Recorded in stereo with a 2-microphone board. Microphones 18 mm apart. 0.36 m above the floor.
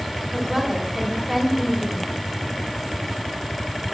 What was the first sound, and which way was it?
A woman speaking, 15° right (ahead or behind).